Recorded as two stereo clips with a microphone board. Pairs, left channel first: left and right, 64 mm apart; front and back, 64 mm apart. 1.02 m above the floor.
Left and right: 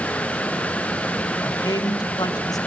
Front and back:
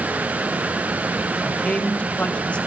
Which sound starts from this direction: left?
A man speaking, at 1.4 s.